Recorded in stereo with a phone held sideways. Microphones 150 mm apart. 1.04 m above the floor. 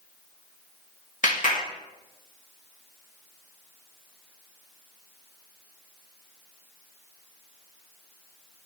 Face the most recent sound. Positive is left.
turn(degrees=60)  # may be behind; listen again after turning